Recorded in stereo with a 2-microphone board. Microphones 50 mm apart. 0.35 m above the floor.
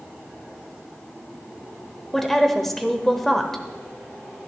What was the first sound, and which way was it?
A woman speaking, 5° left (ahead or behind).